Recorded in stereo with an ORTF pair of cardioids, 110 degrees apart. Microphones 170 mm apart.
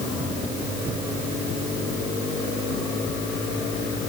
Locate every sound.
Only background noise.